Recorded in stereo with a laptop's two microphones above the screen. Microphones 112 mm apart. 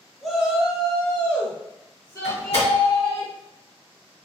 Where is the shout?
Centre (ahead or behind), 1.3 m; by 3.2 s 25° left (ahead or behind), 1.3 m.